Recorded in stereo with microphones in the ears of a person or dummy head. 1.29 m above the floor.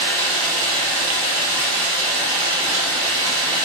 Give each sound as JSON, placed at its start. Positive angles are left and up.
{"t": 0.0, "sound": "running water", "side_deg": -65, "distance_m": 2.0}